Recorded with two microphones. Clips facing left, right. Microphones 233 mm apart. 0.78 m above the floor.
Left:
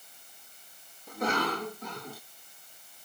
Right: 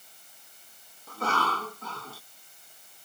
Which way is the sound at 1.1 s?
15° left (ahead or behind).